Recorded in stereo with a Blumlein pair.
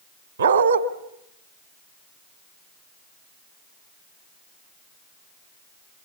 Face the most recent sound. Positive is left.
turn(degrees=-70)